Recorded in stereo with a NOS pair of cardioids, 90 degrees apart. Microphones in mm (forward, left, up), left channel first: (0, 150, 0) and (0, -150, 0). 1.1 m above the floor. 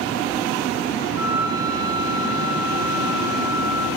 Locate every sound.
1.2 s a flute: 40° left, 1.2 m